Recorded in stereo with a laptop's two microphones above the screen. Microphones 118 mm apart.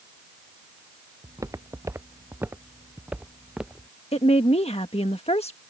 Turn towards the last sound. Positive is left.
turn(degrees=65)  # may be behind; listen again after turning